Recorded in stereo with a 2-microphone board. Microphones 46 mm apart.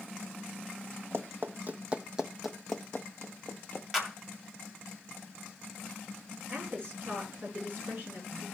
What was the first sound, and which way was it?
Running footsteps, 60° right (ahead or behind).